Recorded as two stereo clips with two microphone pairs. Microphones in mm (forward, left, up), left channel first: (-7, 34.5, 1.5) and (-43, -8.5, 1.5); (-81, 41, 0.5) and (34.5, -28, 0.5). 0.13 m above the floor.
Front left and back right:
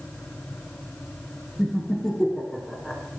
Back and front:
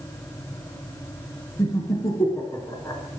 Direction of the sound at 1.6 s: 120° left.